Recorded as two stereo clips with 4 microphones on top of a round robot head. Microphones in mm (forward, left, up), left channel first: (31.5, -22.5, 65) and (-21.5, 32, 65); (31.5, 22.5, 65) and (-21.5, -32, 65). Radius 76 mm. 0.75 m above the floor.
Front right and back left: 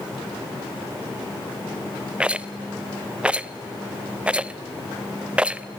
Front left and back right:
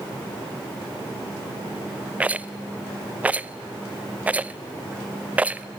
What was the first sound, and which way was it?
A rattle, 175° right.